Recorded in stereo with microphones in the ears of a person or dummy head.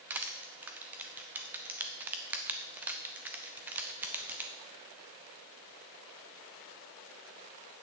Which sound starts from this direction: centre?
Crushing, at 0.1 s.